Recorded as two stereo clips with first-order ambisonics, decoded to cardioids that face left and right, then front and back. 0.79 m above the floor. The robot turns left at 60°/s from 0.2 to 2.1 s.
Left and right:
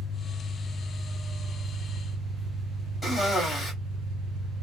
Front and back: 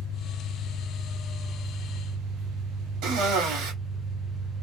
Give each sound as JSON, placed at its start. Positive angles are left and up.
{"t": 0.0, "sound": "an engine running", "azimuth_deg": 10, "distance_m": 0.9}
{"t": 3.0, "sound": "a cough", "azimuth_deg": 180, "distance_m": 1.8}